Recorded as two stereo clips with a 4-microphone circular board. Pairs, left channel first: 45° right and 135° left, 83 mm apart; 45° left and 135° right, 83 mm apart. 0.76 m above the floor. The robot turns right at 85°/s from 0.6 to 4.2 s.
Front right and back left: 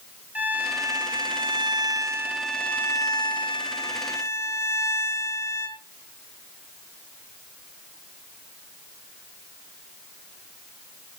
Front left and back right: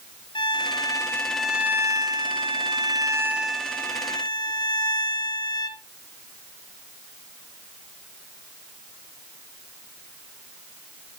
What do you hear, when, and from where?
0.3 s a violin: 65° left, 1.8 m; by 5.8 s 10° left, 1.8 m